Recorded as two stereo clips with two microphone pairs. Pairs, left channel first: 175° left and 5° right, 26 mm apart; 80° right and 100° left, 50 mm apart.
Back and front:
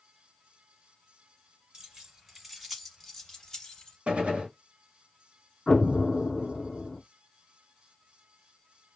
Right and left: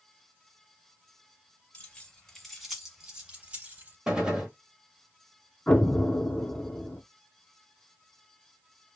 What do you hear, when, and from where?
1.7 s keys jangling: 50° right, 1.1 m; by 4.0 s 135° left, 1.2 m
4.1 s a gunshot: 25° left, 0.9 m
5.7 s an explosion: 140° right, 0.6 m